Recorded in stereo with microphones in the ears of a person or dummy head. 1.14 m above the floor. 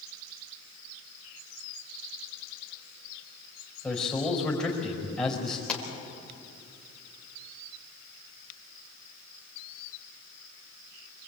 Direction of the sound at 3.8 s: Centre (ahead or behind).